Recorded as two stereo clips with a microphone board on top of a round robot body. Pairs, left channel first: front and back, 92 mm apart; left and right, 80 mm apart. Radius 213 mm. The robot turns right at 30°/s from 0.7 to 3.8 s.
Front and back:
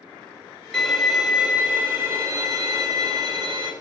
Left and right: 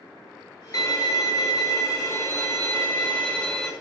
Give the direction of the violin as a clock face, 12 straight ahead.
9 o'clock.